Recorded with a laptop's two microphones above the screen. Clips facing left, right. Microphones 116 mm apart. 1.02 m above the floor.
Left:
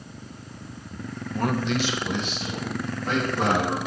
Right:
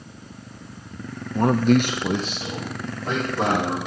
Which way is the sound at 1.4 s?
20° right (ahead or behind).